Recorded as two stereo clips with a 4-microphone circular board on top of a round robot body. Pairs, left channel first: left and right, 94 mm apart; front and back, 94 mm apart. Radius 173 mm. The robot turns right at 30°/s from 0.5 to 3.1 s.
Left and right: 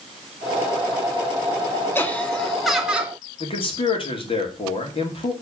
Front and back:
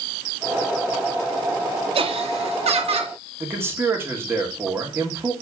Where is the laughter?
160° left, 1.7 m; by 3.1 s 165° right, 1.7 m.